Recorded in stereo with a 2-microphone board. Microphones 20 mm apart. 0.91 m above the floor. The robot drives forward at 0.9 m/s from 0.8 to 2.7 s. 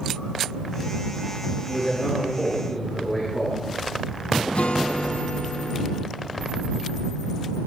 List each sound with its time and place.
1.7 s a man speaking: 45° left (ahead or behind), 6 m; by 3.6 s 40° left (ahead or behind), 6.5 m
4.5 s a guitar: 65° left (ahead or behind), 0.6 m